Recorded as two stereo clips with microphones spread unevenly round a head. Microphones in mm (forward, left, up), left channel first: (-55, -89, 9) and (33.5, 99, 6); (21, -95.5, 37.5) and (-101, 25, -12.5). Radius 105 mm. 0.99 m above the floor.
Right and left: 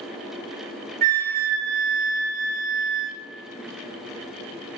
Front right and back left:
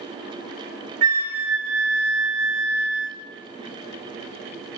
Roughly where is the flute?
Left.